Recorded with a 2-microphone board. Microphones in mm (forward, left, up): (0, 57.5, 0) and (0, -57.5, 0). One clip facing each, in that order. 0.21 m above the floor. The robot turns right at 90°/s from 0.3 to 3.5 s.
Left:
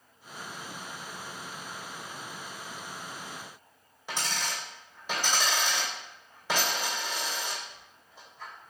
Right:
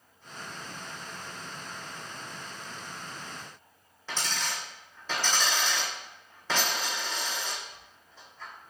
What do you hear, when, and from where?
4.1 s a dropped coin: 15° left (ahead or behind), 2 m